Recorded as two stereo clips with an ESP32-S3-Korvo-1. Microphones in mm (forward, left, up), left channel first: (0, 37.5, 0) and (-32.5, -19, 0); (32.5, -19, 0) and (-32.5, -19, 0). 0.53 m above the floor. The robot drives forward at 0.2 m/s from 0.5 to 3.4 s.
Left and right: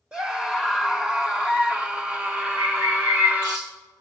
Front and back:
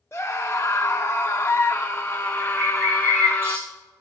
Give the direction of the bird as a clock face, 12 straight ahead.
4 o'clock.